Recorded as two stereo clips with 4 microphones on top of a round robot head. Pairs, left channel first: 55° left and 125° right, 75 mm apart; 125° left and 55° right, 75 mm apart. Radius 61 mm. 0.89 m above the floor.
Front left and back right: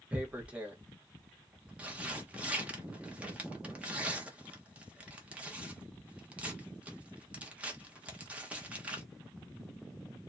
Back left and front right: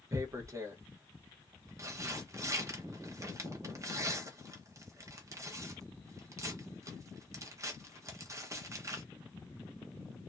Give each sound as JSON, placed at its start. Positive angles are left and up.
{"t": 0.1, "sound": "tearing paper", "azimuth_deg": -60, "distance_m": 1.2}